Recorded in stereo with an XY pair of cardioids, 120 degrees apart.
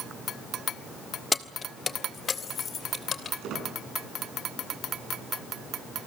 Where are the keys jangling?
25° left, 1.0 m; by 3.3 s 45° left, 2.5 m.